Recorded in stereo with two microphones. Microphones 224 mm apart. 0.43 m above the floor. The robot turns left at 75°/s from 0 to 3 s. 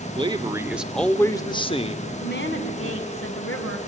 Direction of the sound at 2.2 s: 140° left.